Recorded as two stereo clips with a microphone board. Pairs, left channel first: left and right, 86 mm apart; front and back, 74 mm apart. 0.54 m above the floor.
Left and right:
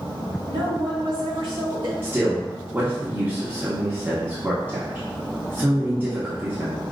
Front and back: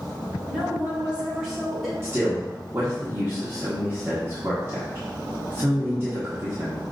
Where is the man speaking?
145° right, 1.1 m.